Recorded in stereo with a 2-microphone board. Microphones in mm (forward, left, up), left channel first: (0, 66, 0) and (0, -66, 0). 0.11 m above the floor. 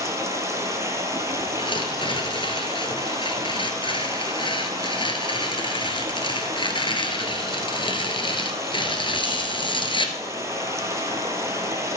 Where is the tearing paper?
35° left (ahead or behind), 1.7 m.